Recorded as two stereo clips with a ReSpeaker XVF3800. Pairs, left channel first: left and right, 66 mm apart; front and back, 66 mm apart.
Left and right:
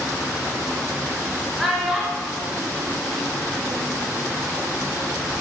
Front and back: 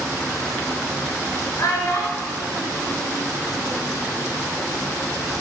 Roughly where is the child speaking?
Ahead.